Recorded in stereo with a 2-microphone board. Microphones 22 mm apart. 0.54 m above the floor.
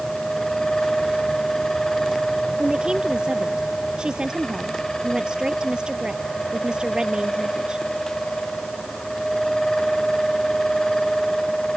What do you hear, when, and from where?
2.6 s a woman speaking: 35° right (ahead or behind)